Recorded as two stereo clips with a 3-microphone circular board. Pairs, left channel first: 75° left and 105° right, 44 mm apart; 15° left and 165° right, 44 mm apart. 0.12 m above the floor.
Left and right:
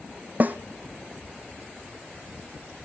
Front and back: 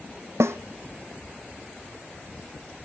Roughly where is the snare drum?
Behind.